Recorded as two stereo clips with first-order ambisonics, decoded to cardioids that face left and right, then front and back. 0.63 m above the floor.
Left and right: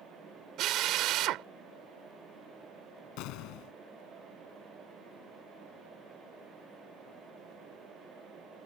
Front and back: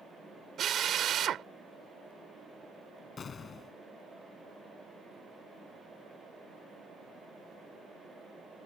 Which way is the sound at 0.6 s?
125° right.